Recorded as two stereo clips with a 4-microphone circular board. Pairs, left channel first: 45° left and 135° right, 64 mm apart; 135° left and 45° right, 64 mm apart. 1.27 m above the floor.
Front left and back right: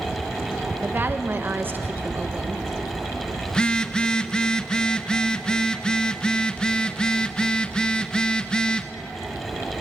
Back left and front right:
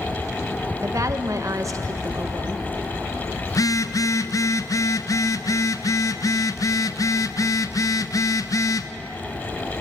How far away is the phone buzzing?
About 0.8 m.